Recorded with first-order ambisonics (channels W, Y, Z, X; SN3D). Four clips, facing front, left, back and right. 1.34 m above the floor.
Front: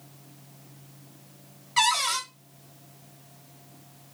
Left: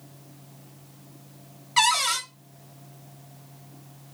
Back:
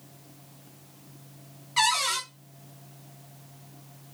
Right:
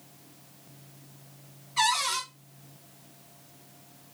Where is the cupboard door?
80° left, 1.3 m.